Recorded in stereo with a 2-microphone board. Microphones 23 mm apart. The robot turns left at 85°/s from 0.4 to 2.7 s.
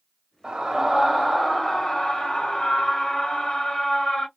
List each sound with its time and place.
0.4 s a scream: 115° right, 1.7 m; by 4.3 s 55° left, 1.7 m